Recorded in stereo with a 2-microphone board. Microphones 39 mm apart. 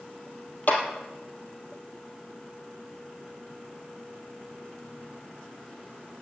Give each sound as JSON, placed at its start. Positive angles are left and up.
{"t": 0.7, "sound": "a clap", "side_deg": 55, "distance_m": 3.0}